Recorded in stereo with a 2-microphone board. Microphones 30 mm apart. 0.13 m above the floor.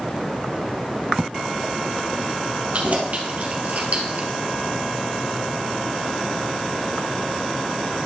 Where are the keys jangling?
50° right (ahead or behind), 2.5 m.